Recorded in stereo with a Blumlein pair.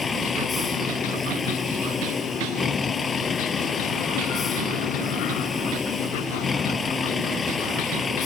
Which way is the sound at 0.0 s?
15° left.